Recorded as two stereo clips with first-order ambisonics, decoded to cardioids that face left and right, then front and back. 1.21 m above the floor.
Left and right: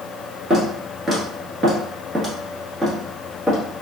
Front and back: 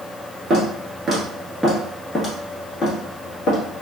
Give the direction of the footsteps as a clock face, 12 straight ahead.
5 o'clock.